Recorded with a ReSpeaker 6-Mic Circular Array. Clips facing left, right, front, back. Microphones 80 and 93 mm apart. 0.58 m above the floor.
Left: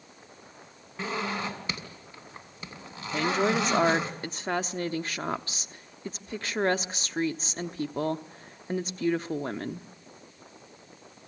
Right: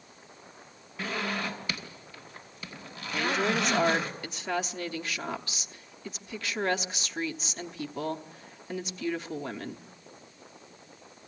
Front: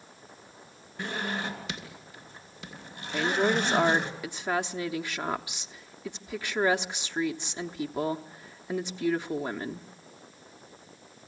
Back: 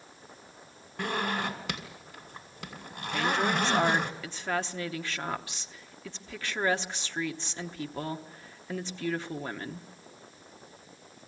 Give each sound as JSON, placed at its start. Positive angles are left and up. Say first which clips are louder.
{"t": 1.0, "sound": "a zipper", "louder": "left 1 dB, back 2 dB", "azimuth_deg": 150, "distance_m": 3.0}
{"t": 3.1, "sound": "a woman speaking", "louder": "left 2 dB, front 2 dB", "azimuth_deg": 65, "distance_m": 0.9}